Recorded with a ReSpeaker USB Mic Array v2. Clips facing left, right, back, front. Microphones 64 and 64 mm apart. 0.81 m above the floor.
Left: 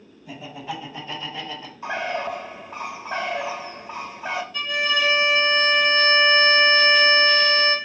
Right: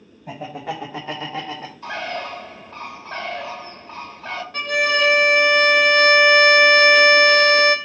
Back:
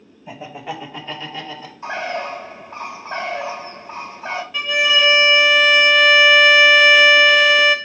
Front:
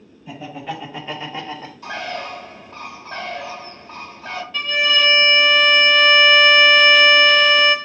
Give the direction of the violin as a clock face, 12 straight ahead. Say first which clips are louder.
Right 6 dB, back 1 dB; 3 o'clock.